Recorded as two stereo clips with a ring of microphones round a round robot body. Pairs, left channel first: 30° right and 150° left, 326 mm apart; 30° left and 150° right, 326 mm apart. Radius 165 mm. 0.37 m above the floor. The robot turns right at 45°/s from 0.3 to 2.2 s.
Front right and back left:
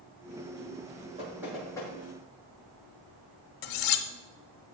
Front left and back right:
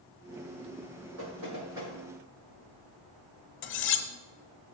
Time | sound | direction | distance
1.2 | knocking | 135° right | 6 m
3.6 | cutlery clinking | 20° right | 1.1 m